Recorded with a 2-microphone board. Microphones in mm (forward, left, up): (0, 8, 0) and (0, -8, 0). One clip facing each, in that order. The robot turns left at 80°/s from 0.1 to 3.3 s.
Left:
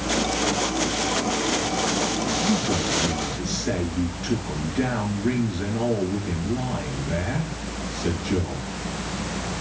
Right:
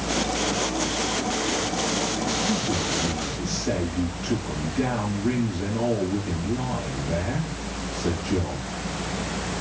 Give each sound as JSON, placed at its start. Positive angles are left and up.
{"t": 2.4, "sound": "a man speaking", "azimuth_deg": 95, "distance_m": 4.5}